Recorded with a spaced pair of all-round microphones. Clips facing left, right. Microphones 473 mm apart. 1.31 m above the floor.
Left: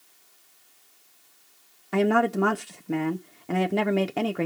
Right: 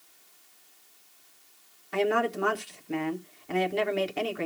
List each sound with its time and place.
1.9 s a woman speaking: 65° left (ahead or behind), 0.6 m